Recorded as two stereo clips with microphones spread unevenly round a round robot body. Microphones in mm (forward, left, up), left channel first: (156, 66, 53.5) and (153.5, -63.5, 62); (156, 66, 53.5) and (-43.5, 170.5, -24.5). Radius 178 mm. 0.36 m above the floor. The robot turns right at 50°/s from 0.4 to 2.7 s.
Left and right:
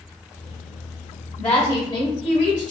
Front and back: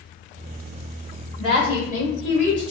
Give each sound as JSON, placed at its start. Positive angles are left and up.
{"t": 1.4, "sound": "a woman speaking", "azimuth_deg": 65, "distance_m": 1.3}